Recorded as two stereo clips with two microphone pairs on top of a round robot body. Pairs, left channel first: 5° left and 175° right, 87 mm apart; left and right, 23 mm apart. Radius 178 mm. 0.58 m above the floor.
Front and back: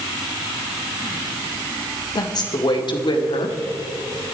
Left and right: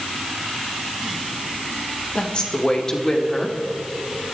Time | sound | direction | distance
2.1 | a woman speaking | 45° left | 2 m